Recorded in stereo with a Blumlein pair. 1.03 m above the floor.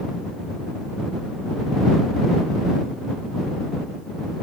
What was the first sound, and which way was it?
Only background noise.